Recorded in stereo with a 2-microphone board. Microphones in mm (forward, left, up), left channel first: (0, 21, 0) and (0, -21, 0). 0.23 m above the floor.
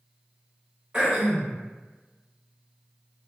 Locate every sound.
0.9 s throat clearing: 25° right (ahead or behind), 1.3 m